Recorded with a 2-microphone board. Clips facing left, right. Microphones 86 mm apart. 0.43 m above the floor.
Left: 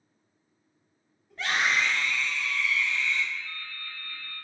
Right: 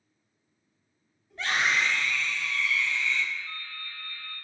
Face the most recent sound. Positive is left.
turn(degrees=45)  # may be behind; listen again after turning